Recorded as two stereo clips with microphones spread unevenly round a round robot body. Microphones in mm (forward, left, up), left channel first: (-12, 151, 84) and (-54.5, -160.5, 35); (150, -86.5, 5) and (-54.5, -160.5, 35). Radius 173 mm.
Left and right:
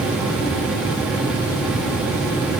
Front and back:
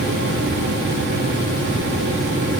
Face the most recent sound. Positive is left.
No sound to turn to.